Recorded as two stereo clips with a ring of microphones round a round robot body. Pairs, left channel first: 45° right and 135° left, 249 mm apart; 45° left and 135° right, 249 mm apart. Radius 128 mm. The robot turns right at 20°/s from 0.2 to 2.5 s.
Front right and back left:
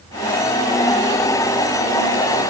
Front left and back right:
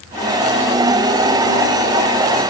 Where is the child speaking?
No child speaking in this recording.